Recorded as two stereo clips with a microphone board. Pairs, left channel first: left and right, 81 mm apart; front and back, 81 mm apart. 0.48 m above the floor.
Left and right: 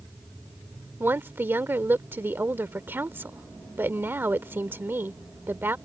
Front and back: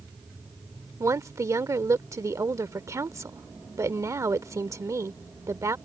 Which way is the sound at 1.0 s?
145° right.